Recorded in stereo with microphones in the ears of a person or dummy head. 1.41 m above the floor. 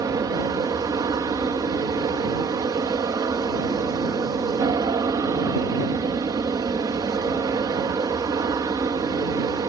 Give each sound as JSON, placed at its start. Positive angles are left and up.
{"t": 0.0, "sound": "an aircraft", "side_deg": -20}